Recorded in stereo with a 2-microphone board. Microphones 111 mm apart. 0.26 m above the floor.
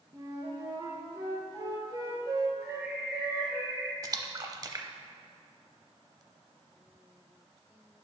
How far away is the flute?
About 1.6 m.